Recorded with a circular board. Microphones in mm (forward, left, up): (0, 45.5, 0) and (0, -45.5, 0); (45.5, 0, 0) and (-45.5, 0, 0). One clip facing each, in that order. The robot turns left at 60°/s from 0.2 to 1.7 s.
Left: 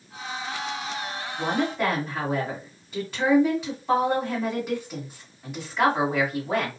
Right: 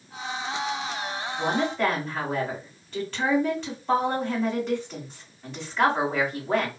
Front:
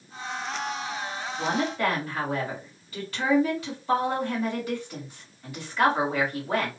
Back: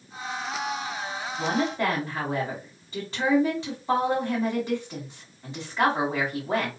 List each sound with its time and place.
1.4 s a woman speaking: 175° right, 1.7 m; by 6.7 s 165° left, 1.7 m